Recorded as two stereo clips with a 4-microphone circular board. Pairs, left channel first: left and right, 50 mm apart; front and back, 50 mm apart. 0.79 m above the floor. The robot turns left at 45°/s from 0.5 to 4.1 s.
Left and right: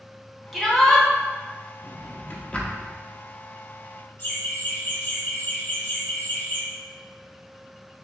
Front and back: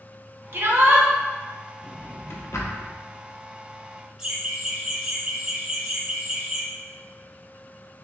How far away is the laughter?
About 1.8 m.